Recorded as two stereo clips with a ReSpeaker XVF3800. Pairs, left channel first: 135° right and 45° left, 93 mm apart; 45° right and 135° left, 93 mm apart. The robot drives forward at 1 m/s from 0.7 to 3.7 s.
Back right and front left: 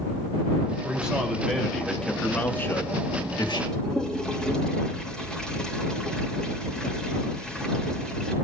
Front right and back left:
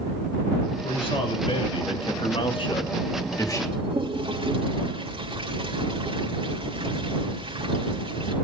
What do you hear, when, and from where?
0.8 s a man speaking: 30° right, 3 m; by 3.6 s 100° right, 1.6 m
3.7 s a toilet flushing: 145° left, 3 m